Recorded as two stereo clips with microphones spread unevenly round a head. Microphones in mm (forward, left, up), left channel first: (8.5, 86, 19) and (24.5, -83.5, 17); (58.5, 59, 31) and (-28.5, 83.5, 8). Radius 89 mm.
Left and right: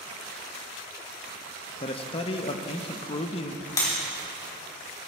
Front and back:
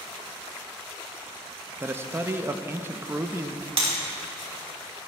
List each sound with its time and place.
1.8 s a man speaking: 135° left, 0.7 m
3.8 s breaking glass: 165° left, 3.5 m